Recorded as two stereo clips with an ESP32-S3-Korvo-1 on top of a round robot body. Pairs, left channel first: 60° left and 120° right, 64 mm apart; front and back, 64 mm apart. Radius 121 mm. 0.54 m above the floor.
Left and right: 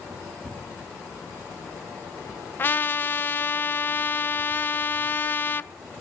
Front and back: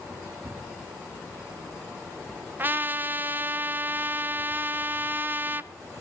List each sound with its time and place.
2.6 s a trumpet: 120° left, 0.8 m